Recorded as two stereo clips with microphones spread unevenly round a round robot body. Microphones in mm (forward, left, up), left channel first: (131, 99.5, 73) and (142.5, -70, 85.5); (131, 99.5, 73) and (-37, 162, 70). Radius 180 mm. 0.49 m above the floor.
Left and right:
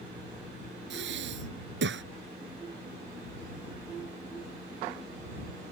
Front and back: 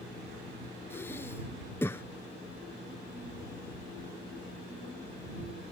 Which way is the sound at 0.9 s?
105° right.